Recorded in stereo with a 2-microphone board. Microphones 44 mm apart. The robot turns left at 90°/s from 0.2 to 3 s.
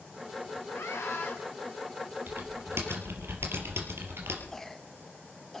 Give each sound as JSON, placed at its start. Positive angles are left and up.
{"t": 0.7, "sound": "a scream", "azimuth_deg": 115, "distance_m": 6.0}
{"t": 2.3, "sound": "typing on a keyboard", "azimuth_deg": -50, "distance_m": 4.0}
{"t": 4.5, "sound": "a cough", "side_deg": 10, "distance_m": 0.9}